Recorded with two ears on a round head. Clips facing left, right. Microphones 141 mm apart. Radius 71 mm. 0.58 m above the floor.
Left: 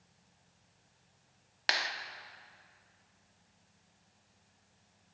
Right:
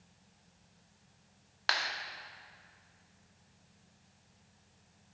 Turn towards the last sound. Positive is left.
turn(degrees=20)  # may be behind; listen again after turning